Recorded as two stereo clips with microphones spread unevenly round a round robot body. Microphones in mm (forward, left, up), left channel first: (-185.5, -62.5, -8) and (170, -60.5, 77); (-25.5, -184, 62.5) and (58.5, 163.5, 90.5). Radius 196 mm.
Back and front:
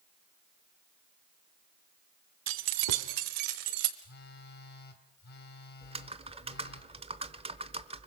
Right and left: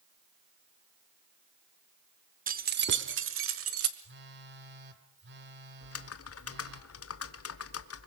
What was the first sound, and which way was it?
Keys jangling, 15° left.